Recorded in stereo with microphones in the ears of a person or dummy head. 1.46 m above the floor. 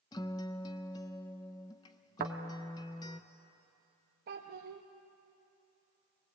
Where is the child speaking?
45° right (ahead or behind), 1.0 m.